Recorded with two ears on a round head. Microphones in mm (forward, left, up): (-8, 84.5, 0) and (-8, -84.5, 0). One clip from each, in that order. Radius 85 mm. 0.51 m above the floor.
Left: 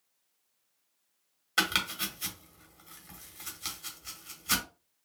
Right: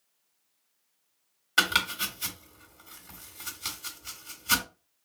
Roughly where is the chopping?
Centre.